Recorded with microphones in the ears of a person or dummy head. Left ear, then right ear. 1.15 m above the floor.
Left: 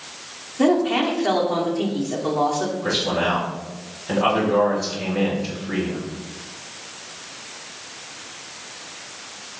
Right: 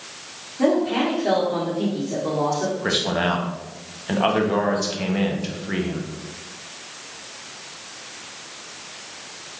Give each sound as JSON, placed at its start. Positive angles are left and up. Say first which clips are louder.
{"t": 0.6, "sound": "a woman speaking", "louder": "left 1 dB", "side_deg": 50, "distance_m": 0.8}
{"t": 2.8, "sound": "a man speaking", "louder": "left 1 dB", "side_deg": -30, "distance_m": 0.5}